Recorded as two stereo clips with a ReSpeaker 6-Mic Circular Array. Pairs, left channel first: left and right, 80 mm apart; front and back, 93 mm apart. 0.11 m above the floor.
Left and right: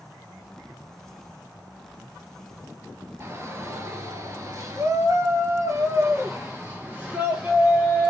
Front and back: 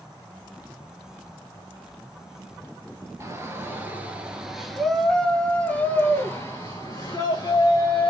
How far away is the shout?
About 1.7 m.